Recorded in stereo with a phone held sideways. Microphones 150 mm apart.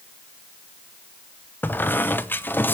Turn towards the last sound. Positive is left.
turn(degrees=15)  # may be behind; listen again after turning